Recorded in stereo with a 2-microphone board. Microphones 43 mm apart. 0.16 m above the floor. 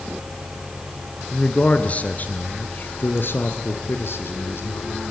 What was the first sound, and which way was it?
A man speaking, 25° left (ahead or behind).